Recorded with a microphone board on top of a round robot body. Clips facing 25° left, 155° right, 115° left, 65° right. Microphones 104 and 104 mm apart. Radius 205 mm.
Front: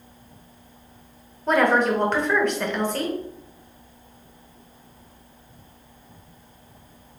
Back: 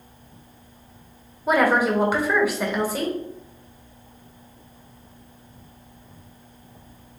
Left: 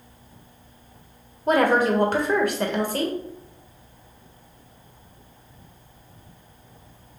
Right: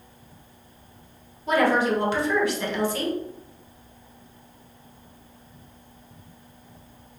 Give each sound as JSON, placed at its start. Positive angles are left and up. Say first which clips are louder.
{"t": 1.5, "sound": "a woman speaking", "louder": "even, left 2 dB", "azimuth_deg": 120, "distance_m": 1.6}